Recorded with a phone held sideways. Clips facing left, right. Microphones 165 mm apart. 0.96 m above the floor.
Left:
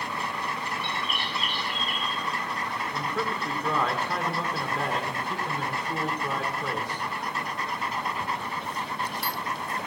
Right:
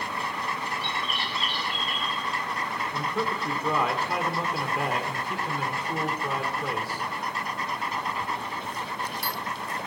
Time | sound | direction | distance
0.8 | a bird | 55° left (ahead or behind) | 3 m
2.9 | a man speaking | 5° right (ahead or behind) | 1.2 m